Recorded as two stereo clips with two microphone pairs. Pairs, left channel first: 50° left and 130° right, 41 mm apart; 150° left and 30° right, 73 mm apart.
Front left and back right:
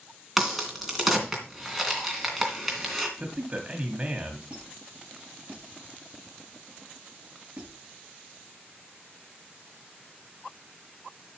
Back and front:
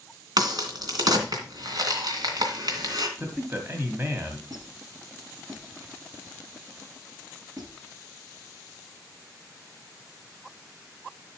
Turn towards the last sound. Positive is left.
turn(degrees=-65)